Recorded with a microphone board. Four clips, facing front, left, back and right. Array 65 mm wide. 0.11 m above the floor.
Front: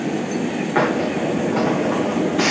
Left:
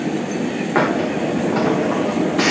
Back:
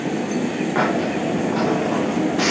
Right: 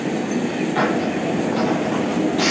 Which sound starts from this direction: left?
A hiss, at 0.8 s.